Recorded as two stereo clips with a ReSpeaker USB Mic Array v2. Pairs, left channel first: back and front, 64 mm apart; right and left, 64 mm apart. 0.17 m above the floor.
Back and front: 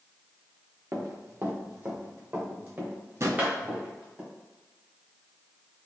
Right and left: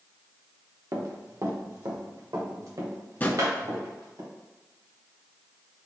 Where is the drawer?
30° right, 0.5 m.